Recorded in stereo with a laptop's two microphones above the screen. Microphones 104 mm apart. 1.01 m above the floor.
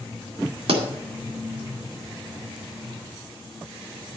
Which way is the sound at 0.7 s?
70° right (ahead or behind).